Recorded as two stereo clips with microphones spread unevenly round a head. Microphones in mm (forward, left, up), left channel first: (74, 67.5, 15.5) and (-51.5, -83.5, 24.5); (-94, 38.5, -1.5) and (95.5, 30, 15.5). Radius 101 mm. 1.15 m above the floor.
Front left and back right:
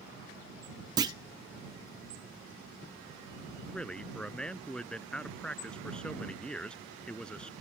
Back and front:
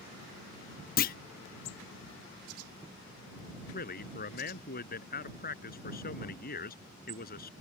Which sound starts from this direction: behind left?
A man speaking, at 3.7 s.